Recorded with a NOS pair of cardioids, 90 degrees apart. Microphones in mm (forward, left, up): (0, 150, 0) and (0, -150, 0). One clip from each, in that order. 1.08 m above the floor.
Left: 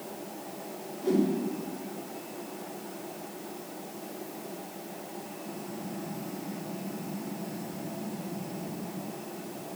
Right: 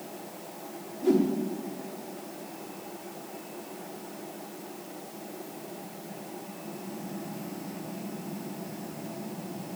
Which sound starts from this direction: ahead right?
A whoosh, at 1.0 s.